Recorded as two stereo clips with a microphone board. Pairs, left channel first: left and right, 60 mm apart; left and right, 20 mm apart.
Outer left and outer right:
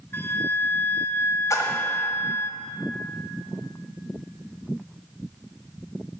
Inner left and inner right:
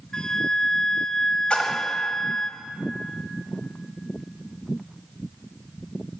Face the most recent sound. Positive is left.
turn(degrees=70)  # may be behind; listen again after turning